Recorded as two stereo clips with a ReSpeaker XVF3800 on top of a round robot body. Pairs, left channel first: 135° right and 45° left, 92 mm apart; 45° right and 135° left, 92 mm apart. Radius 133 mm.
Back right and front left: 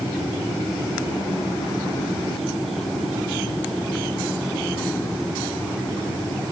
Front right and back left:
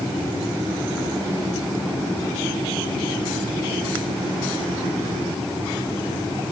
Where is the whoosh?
I don't hear a whoosh.